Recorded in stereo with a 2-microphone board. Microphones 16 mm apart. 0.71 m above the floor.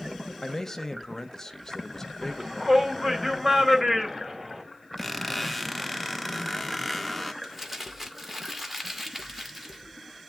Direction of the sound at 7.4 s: 10° right (ahead or behind).